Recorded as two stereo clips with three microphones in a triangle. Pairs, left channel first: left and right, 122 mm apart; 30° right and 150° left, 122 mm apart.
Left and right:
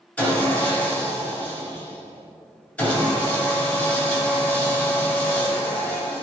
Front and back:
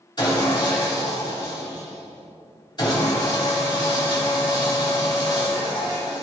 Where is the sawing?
15° left, 2 m.